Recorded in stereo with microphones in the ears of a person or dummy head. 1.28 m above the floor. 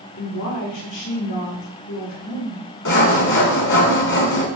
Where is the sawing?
65° left (ahead or behind), 1.7 m.